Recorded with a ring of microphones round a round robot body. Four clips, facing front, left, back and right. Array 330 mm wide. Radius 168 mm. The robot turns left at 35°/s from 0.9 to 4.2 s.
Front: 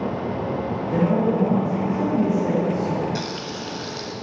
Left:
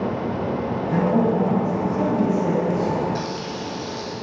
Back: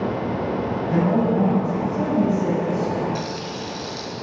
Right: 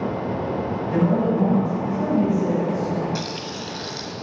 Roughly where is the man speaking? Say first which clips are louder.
Left 1 dB, even; behind.